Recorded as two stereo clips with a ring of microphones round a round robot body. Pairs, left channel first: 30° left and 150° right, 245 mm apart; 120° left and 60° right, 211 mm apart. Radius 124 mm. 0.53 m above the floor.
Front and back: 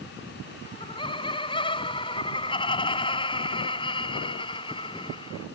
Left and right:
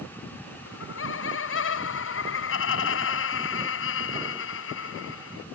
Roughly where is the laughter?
Left.